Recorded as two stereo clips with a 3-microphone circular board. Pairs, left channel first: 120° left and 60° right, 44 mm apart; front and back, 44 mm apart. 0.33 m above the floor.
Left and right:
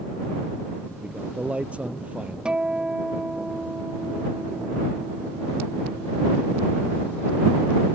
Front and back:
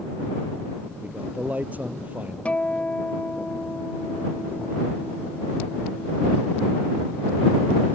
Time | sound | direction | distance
1.0 | a man speaking | 125° right | ?
2.5 | a guitar | 15° right | ?